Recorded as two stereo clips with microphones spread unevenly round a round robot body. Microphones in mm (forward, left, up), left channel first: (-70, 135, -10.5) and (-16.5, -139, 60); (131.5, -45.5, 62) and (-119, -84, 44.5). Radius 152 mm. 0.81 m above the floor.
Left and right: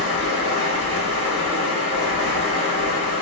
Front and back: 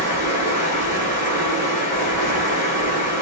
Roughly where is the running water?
Ahead right.